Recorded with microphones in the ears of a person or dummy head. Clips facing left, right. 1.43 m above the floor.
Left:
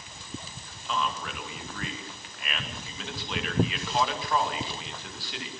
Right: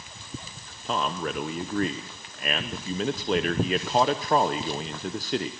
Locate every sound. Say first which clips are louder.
0.8 s a man speaking: right 4 dB; 40° right (ahead or behind), 0.9 m